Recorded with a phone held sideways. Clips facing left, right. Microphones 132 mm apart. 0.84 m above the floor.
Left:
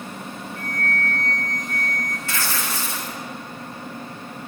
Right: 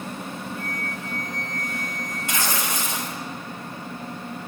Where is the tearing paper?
20° right (ahead or behind), 0.8 m.